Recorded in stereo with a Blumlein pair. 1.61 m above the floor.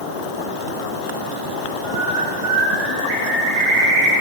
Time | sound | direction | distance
1.8 | a bird | 45° right | 1.7 m